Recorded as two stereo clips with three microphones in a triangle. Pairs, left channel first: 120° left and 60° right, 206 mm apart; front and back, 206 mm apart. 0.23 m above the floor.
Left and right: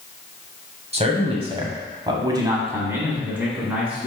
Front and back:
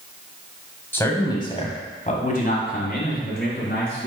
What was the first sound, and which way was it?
A man speaking, 70° right.